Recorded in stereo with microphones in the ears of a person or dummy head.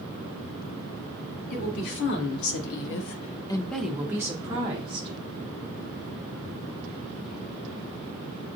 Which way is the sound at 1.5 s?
60° left (ahead or behind).